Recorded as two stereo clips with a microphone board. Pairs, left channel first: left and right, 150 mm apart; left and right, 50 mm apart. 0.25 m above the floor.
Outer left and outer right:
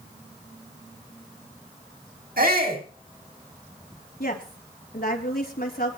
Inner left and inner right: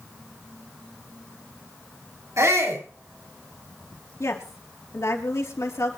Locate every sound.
2.4 s a shout: 75° right (ahead or behind), 7.5 m
4.2 s a woman speaking: 75° left (ahead or behind), 4 m